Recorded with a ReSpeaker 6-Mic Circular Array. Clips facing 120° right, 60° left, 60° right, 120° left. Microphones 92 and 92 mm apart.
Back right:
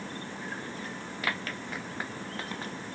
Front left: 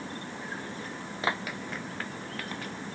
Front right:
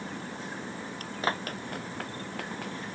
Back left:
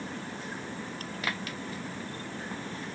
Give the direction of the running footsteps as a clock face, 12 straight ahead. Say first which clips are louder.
Front left 3 dB, front right 5 dB; 12 o'clock.